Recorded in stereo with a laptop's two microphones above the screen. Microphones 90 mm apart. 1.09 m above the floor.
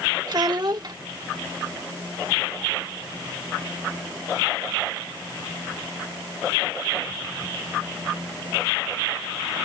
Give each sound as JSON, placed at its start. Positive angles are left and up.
{"t": 0.3, "sound": "a child speaking", "side_deg": -50}